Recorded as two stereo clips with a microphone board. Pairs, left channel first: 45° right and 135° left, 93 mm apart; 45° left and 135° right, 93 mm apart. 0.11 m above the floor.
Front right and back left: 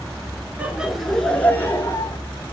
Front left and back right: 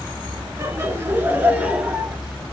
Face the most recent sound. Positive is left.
turn(degrees=-65)